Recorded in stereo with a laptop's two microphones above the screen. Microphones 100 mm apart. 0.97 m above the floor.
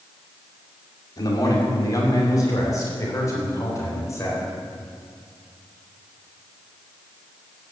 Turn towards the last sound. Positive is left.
turn(degrees=30)  # may be behind; listen again after turning